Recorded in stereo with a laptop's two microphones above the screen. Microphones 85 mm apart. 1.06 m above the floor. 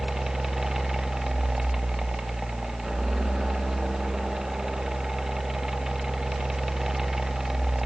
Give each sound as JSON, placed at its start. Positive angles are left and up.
{"t": 0.0, "sound": "a fan", "side_deg": -5, "distance_m": 1.0}